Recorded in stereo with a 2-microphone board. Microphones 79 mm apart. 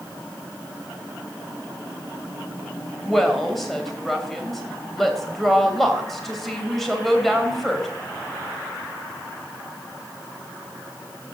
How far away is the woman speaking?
About 3 m.